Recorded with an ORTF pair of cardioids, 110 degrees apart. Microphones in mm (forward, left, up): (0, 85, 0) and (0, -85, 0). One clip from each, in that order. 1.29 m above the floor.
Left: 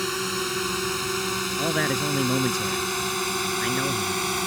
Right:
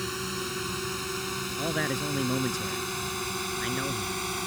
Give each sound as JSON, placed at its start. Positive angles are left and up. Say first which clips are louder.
{"t": 0.0, "sound": "a drone", "louder": "left 6 dB", "azimuth_deg": 35}
{"t": 1.6, "sound": "a man speaking", "louder": "left 4 dB", "azimuth_deg": 25}